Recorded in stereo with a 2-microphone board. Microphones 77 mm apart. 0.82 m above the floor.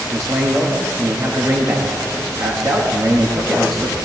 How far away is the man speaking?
About 1.5 m.